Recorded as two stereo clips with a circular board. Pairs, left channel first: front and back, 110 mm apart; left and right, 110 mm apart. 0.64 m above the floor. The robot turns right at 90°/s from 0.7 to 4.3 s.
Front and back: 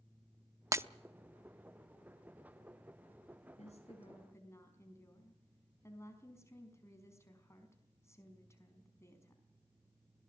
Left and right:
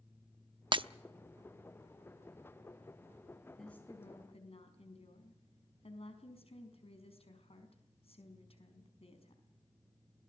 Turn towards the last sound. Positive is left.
turn(degrees=65)